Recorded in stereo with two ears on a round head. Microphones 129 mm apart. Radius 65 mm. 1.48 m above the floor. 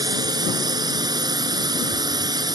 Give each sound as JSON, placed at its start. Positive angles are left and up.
{"t": 0.0, "sound": "a drone", "side_deg": -30}